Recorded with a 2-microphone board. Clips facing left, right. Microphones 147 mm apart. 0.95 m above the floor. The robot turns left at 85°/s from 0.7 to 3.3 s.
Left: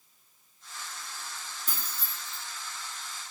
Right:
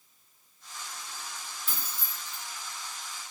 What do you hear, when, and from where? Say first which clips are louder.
1.7 s keys jangling: even; 40° left (ahead or behind), 1.0 m; by 2.4 s 75° left (ahead or behind), 1.0 m